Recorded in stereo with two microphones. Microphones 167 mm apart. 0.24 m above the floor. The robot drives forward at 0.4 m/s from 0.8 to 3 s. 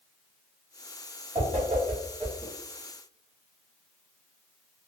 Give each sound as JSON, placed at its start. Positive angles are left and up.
{"t": 1.4, "sound": "a whoosh", "side_deg": -40, "distance_m": 1.3}